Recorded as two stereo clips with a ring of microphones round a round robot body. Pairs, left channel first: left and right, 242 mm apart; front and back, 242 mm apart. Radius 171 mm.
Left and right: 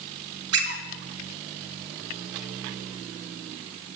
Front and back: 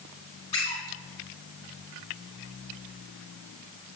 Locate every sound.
0.5 s a squeak: 75° right, 1.2 m